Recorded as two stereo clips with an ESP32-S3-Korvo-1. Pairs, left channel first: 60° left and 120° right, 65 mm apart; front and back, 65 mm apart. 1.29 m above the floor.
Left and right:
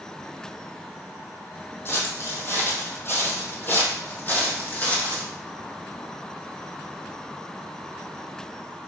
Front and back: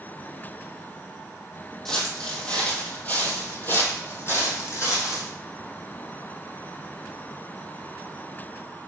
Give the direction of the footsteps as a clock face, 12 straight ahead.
9 o'clock.